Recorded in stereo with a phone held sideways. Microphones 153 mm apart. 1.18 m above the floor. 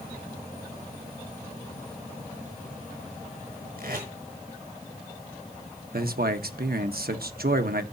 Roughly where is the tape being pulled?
Right.